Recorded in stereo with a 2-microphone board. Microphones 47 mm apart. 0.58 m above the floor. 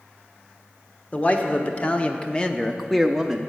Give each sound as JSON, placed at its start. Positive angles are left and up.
{"t": 1.1, "sound": "a man speaking", "side_deg": 30, "distance_m": 1.3}